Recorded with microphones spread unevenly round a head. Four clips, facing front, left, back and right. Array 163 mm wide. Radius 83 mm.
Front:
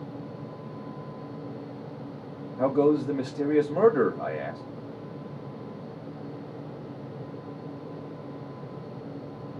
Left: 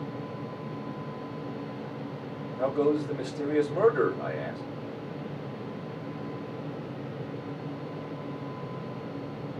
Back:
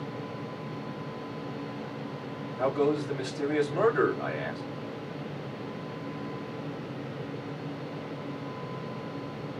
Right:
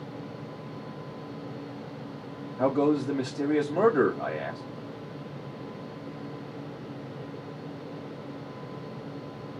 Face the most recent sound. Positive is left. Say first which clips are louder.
# right 2 dB, front 4 dB
turn(degrees=0)